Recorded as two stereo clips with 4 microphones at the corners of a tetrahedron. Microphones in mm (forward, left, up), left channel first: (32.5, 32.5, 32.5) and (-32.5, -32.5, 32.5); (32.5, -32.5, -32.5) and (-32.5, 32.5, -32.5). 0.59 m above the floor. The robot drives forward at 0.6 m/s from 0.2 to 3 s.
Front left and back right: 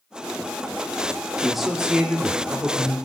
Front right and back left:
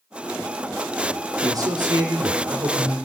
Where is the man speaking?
135° left, 1.4 m; by 3.0 s 160° left, 2 m.